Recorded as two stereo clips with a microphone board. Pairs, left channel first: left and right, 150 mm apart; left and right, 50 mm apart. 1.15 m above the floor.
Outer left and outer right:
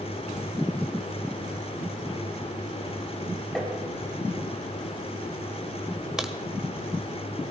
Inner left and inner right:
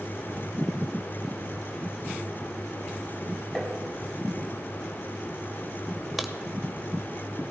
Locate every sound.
3.5 s tapping: 5° left (ahead or behind), 3.5 m
6.2 s a crack: 5° right (ahead or behind), 1.3 m